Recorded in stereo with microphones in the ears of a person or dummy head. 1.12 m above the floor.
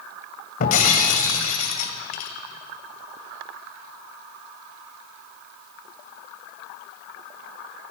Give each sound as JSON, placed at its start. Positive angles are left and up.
{"t": 0.6, "sound": "breaking glass", "side_deg": 45, "distance_m": 2.0}